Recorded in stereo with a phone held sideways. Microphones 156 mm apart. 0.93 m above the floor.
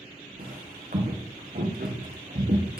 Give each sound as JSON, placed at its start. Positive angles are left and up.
{"t": 0.4, "sound": "footsteps", "side_deg": -70, "distance_m": 3.0}